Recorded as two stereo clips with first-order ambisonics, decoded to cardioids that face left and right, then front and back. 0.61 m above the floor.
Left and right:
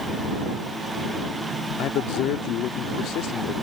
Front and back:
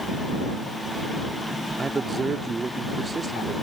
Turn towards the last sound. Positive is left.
turn(degrees=110)